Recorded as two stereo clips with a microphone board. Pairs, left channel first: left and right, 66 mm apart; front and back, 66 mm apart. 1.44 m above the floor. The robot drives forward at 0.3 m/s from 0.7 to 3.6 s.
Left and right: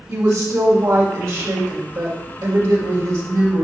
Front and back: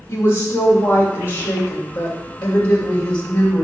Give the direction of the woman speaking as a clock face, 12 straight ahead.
2 o'clock.